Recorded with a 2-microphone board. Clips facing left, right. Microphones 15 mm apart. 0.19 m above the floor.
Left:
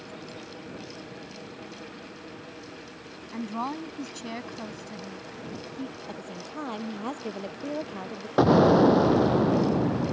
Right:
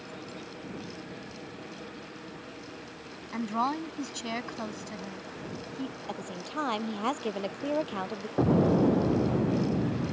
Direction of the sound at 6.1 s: 25° right (ahead or behind).